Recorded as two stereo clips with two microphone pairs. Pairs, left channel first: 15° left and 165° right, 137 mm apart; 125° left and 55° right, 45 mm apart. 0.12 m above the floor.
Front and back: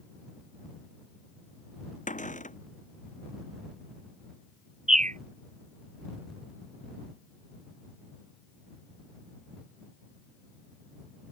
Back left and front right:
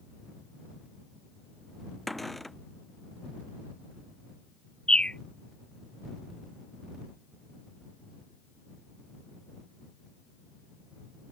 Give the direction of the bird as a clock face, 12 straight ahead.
6 o'clock.